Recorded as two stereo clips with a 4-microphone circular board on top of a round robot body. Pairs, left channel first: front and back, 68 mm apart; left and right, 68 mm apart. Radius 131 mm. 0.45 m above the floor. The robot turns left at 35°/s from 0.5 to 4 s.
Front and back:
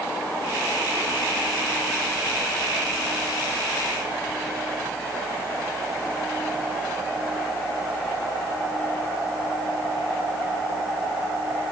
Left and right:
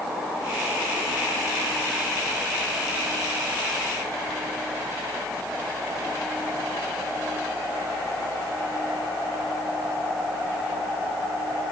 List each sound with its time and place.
Only background noise.